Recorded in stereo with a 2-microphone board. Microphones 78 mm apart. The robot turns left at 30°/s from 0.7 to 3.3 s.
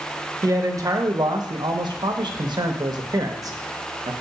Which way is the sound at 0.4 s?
50° right.